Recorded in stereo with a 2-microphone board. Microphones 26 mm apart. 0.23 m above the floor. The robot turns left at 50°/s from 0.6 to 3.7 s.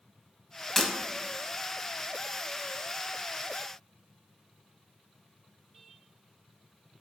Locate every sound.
0.8 s breaking glass: 15° left (ahead or behind), 0.6 m